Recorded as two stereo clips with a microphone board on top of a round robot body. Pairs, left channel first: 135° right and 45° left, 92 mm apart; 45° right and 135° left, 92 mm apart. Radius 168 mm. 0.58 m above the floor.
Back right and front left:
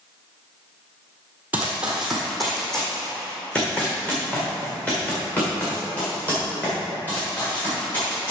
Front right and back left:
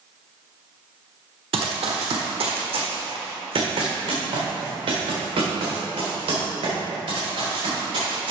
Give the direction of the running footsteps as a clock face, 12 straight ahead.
8 o'clock.